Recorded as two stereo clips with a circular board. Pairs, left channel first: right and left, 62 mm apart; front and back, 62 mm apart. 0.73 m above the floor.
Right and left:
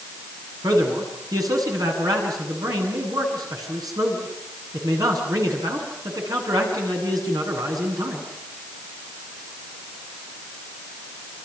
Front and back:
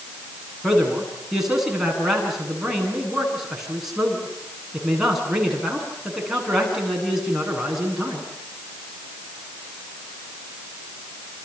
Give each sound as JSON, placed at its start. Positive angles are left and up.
{"t": 0.6, "sound": "a man speaking", "azimuth_deg": 95, "distance_m": 9.5}